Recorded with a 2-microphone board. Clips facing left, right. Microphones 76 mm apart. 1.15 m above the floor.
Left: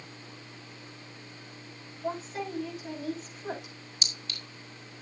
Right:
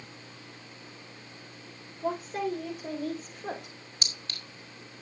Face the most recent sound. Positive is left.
turn(degrees=-40)  # may be behind; listen again after turning